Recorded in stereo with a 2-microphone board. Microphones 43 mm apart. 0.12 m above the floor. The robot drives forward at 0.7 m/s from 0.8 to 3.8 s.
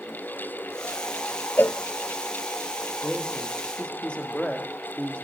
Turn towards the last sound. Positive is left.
turn(degrees=25)  # may be behind; listen again after turning